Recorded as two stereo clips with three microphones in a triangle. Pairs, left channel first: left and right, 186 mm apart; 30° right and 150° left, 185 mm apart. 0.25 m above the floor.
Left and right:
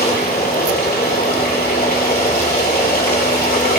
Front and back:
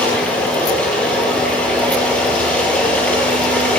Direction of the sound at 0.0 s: 55° left.